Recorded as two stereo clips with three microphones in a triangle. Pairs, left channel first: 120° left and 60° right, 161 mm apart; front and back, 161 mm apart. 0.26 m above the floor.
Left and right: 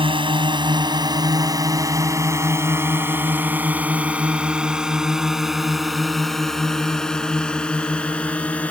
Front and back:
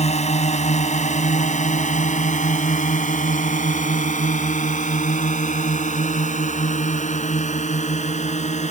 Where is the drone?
20° right; by 8.7 s 40° left.